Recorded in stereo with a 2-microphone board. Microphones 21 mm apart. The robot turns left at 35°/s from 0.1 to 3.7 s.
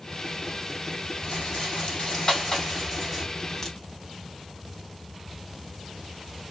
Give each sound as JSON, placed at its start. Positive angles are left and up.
{"t": 1.2, "sound": "a rattle", "azimuth_deg": 75, "distance_m": 3.5}
{"t": 3.6, "sound": "a crack", "side_deg": 20, "distance_m": 2.5}